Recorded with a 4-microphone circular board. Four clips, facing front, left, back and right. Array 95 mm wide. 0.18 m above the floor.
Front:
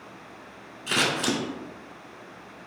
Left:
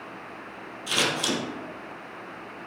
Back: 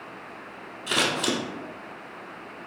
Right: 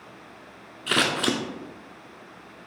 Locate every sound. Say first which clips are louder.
0.9 s scissors: right 3 dB, even; 90° right, 0.5 m